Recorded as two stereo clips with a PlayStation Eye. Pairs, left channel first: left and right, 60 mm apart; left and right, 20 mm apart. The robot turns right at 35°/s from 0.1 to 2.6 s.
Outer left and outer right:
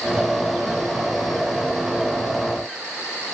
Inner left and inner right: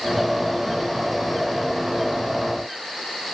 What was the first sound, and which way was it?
Only background noise.